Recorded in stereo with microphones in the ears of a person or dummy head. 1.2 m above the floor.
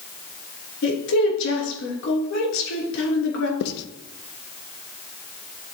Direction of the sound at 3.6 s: 55° left (ahead or behind).